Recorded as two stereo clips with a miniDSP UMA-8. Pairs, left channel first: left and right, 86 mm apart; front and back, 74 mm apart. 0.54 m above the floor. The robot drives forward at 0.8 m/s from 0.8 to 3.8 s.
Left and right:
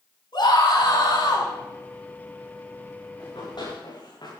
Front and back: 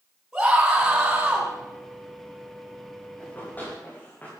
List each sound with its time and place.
0.3 s a scream: 95° left, 4.5 m; by 1.5 s 105° left, 5 m
3.2 s running footsteps: 65° left, 8.5 m